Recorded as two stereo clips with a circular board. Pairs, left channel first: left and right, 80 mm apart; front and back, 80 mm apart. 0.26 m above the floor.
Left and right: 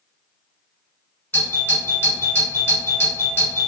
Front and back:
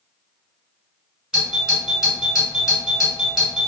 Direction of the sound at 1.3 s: 105° left.